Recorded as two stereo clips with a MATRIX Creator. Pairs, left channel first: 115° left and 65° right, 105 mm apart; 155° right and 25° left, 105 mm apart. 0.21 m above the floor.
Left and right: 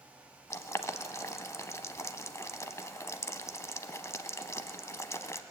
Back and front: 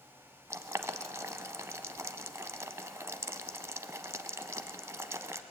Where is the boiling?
70° left, 0.7 m.